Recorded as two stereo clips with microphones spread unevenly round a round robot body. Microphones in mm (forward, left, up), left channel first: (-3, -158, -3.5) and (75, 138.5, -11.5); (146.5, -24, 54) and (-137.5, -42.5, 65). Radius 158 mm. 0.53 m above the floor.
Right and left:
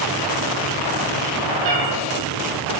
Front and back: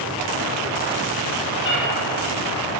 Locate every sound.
1.6 s a cat meowing: 60° left, 3.5 m